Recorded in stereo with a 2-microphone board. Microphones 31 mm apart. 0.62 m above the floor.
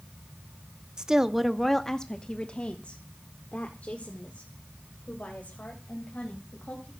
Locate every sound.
1.0 s a woman speaking: 25° right (ahead or behind), 0.8 m; by 6.9 s 65° left (ahead or behind), 3.5 m